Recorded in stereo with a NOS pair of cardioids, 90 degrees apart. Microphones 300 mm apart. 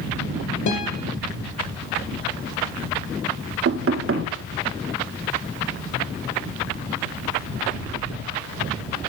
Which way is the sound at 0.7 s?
65° left.